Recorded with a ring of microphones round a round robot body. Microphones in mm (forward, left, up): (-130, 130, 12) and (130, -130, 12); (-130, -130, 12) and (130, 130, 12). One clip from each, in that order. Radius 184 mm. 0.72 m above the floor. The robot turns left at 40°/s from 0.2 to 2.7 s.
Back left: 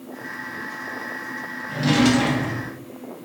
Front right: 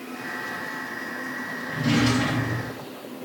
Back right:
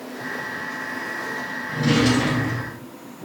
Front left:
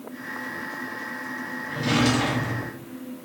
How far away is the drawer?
About 1.4 m.